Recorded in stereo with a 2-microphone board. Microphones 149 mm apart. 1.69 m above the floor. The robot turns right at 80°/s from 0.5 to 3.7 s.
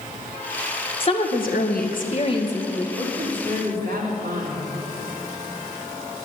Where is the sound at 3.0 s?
150° right, 3.5 m; by 4.7 s 90° right, 3.5 m.